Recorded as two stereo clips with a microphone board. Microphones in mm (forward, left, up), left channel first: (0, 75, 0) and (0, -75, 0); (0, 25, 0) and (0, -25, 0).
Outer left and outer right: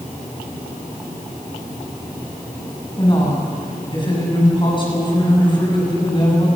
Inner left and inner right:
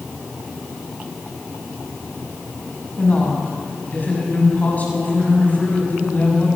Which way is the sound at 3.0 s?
30° left (ahead or behind).